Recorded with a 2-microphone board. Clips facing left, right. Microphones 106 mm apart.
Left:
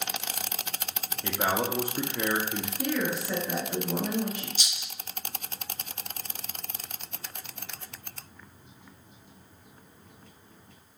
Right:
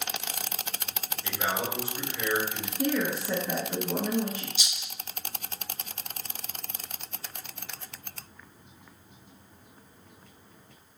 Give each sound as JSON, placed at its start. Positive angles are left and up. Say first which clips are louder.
{"t": 1.2, "sound": "a man speaking", "louder": "left 3 dB", "side_deg": 50, "distance_m": 0.7}
{"t": 2.8, "sound": "a woman speaking", "louder": "right 2 dB", "side_deg": -25, "distance_m": 1.2}
{"t": 4.6, "sound": "a rattle", "louder": "even", "side_deg": 45, "distance_m": 1.5}